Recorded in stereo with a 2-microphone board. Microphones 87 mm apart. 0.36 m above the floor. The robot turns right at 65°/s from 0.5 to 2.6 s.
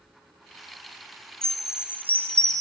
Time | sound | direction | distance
1.4 | a chime | 170° left | 0.6 m